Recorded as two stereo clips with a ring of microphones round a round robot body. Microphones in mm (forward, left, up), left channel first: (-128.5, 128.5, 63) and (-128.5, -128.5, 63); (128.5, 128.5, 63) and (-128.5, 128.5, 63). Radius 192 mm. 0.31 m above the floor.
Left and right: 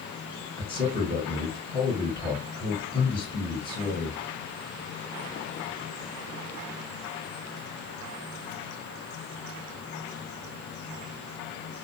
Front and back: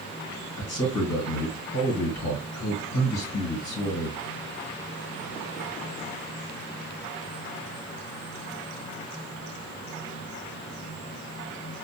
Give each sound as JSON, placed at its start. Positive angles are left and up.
{"t": 0.6, "sound": "a man speaking", "azimuth_deg": 5, "distance_m": 3.5}